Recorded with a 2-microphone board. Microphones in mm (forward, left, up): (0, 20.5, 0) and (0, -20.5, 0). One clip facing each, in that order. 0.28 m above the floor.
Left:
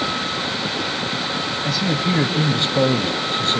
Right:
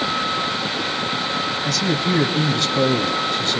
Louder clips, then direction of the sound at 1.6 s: Left 1 dB; 15° left (ahead or behind).